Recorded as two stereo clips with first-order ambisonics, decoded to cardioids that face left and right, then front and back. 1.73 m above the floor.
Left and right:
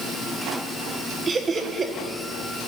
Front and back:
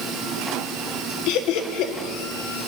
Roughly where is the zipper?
No zipper in this recording.